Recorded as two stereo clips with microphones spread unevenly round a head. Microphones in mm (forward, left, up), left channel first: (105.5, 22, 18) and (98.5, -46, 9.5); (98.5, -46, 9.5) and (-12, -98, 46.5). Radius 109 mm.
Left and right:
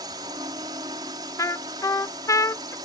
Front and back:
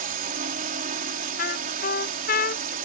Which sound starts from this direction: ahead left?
A trumpet, at 1.4 s.